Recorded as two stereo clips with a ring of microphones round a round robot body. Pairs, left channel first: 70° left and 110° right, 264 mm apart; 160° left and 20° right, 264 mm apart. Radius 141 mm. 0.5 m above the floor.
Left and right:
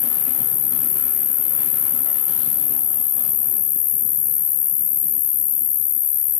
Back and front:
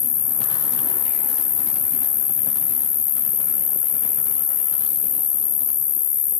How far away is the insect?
About 1.3 m.